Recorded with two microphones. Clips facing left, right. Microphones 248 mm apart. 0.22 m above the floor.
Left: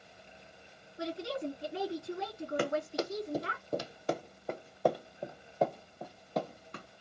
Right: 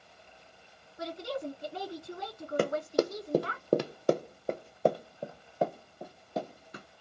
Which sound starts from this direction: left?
A woman speaking, at 1.0 s.